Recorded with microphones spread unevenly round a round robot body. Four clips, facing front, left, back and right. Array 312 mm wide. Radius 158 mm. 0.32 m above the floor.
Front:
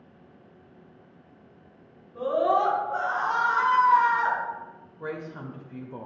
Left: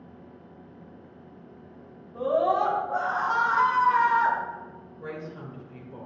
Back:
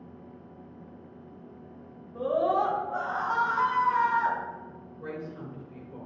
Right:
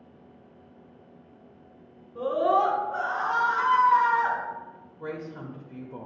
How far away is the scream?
About 2.5 m.